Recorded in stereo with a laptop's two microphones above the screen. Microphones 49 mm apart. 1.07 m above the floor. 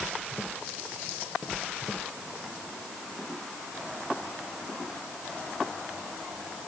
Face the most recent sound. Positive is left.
No sound to turn to.